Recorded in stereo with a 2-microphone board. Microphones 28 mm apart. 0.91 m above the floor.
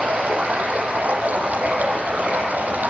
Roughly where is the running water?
Right.